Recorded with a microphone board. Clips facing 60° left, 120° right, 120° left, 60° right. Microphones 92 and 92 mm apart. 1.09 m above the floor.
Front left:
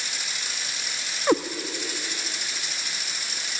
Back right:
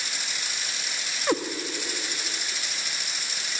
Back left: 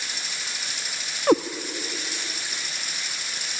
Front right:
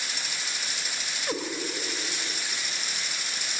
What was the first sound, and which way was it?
A cat meowing, 130° left.